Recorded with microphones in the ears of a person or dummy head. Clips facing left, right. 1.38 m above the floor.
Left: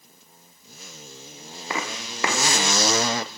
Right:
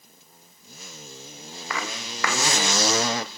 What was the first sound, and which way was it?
Footsteps, 25° left (ahead or behind).